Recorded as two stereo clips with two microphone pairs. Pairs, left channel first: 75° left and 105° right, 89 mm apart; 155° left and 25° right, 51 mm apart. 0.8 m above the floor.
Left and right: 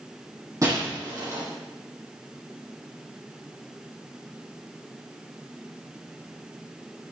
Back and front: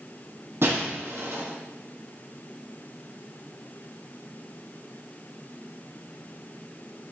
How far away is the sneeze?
I don't hear a sneeze.